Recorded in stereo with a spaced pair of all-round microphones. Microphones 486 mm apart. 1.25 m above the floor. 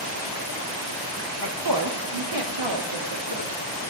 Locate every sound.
1.4 s a woman speaking: 40° right (ahead or behind), 1.2 m; by 3.5 s 75° right (ahead or behind), 1.9 m